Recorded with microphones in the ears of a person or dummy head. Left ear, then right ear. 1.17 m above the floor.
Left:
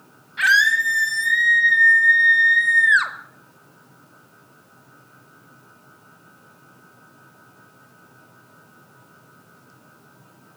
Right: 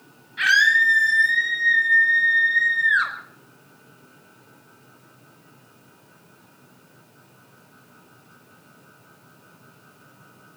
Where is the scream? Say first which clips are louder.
Even; 15° left (ahead or behind), 8.5 m; by 3.1 s 35° left (ahead or behind), 5 m.